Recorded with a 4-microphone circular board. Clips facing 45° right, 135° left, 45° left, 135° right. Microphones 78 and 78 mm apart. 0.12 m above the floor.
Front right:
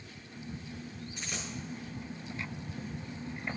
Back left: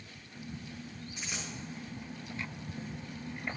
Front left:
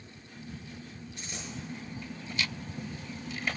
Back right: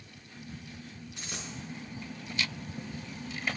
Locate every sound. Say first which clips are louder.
1.2 s a dropped coin: even, back right 1 dB; 140° right, 5.5 m